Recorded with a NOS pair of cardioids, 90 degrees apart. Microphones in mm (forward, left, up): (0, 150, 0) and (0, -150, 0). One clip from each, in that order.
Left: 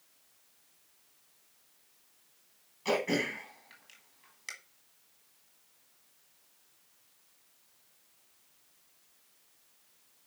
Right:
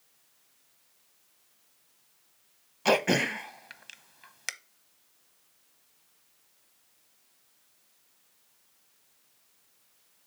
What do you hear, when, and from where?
2.9 s throat clearing: 65° right, 0.9 m